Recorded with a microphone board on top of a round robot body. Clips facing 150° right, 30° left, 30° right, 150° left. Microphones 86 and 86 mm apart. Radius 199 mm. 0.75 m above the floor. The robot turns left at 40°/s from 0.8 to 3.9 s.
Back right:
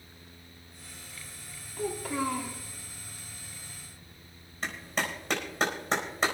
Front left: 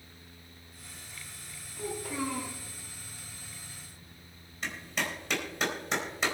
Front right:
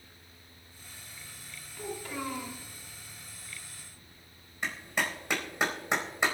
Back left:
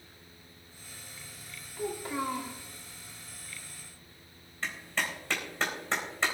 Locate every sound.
1.8 s a child speaking: 135° right, 2.5 m; by 2.6 s 170° right, 2.5 m
4.6 s a clap: 100° right, 4 m